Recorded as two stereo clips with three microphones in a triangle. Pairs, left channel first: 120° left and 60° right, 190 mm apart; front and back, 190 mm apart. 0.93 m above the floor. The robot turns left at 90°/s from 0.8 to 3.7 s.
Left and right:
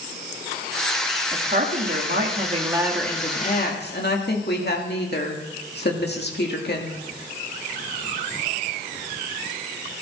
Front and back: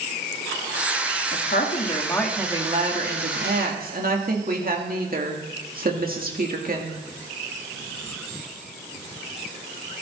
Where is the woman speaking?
Straight ahead, 2 m; by 7.0 s 145° left, 2 m.